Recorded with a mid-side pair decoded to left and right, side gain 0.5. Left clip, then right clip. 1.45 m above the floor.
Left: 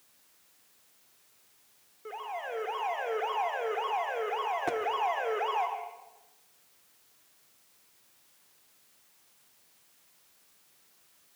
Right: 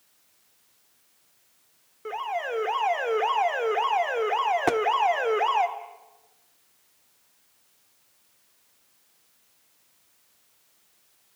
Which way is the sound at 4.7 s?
60° right.